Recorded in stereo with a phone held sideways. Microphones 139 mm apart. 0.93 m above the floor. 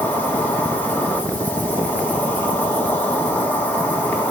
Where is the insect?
15° left (ahead or behind), 1.8 m.